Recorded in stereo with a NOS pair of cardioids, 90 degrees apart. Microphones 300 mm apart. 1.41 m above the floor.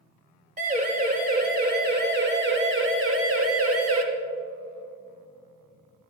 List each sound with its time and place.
0.6 s a siren: 25° right, 4 m; by 4.0 s 55° right, 2 m